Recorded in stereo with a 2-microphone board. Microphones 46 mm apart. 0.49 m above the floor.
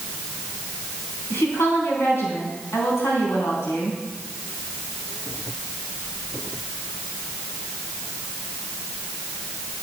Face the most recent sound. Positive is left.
turn(degrees=70)  # may be behind; listen again after turning